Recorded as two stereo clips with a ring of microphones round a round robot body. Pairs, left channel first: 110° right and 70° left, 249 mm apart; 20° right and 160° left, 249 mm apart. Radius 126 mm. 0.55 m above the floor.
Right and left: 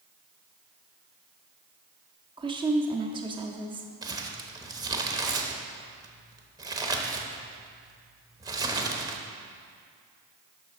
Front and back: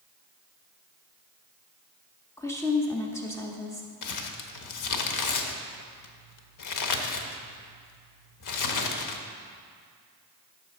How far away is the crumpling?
About 0.8 m.